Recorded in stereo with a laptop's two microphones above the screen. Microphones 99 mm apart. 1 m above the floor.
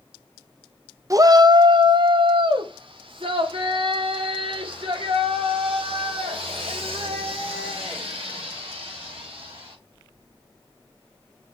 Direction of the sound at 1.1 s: 35° right (ahead or behind).